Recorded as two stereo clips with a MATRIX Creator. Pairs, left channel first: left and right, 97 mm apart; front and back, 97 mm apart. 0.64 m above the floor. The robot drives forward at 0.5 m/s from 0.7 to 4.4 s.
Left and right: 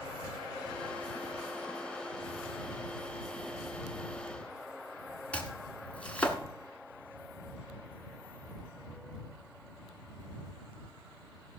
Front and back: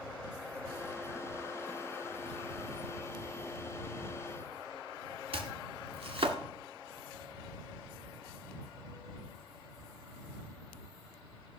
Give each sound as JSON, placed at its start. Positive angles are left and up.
{"t": 5.3, "sound": "chopping", "azimuth_deg": 165, "distance_m": 1.6}